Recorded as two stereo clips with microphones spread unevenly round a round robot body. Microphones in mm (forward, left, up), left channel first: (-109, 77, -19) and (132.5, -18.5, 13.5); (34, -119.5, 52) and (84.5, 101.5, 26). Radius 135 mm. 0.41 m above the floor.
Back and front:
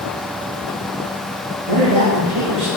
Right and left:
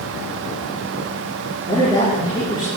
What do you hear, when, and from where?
1.7 s a woman speaking: 30° right, 6 m